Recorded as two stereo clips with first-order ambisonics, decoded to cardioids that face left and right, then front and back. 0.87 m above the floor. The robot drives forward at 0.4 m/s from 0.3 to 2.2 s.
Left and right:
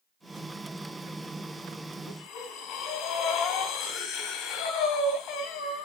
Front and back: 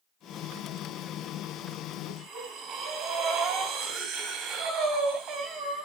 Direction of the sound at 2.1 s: 145° left.